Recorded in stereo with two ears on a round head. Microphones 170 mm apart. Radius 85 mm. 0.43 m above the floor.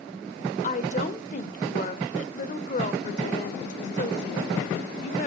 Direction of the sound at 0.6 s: 40° left (ahead or behind).